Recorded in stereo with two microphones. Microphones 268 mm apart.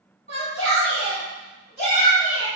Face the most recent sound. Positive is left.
turn(degrees=-20)  # may be behind; listen again after turning